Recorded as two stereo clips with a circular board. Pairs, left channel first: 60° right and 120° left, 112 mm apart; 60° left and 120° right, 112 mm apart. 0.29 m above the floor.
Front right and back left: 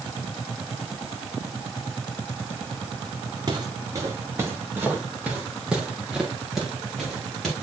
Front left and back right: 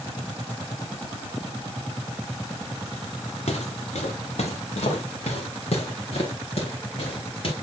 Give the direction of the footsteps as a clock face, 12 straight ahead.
10 o'clock.